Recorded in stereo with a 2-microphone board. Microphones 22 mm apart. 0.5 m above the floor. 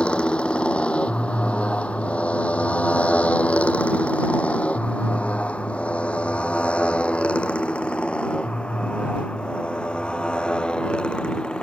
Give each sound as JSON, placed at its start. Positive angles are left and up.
{"t": 0.0, "sound": "a motorcycle", "side_deg": 50}